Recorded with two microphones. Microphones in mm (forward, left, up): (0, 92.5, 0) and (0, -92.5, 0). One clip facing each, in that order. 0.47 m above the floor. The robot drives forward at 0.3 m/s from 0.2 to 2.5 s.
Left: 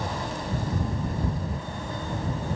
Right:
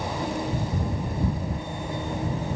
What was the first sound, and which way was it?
Only background noise.